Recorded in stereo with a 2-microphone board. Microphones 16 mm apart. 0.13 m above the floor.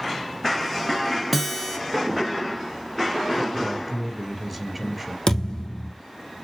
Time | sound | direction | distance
1.3 | a guitar | 5° right (ahead or behind) | 1.9 m
3.5 | a man speaking | 5° left (ahead or behind) | 2.5 m
5.3 | a thud | 50° left (ahead or behind) | 2 m